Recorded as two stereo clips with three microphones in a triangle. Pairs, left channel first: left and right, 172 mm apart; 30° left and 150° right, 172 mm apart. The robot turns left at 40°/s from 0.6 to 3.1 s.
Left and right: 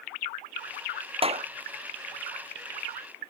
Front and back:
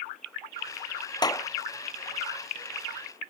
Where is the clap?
35° right; by 1.5 s 45° right.